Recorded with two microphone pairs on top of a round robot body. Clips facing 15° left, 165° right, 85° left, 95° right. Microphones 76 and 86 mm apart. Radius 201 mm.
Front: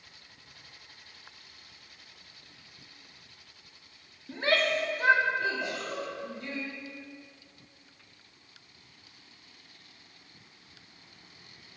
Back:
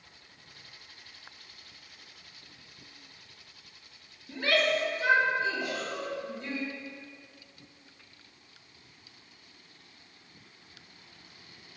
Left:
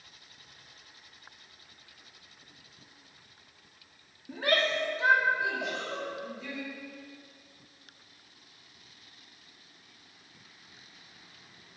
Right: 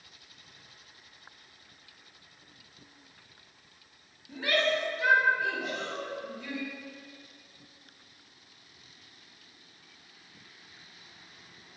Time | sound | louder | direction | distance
4.3 | a shout | even, even | 70° left | 1.9 m
5.6 | a giggle | even, left 1 dB | 80° left | 2.5 m